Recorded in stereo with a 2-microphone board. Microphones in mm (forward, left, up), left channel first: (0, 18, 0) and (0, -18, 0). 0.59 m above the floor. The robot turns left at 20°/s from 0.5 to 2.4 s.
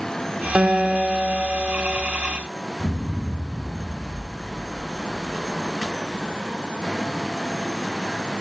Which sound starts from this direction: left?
An explosion, at 2.8 s.